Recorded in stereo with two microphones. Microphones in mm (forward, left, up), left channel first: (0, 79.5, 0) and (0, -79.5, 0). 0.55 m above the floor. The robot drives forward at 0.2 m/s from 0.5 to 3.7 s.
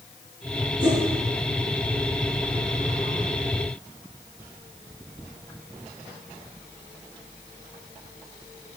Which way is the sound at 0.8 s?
60° left (ahead or behind).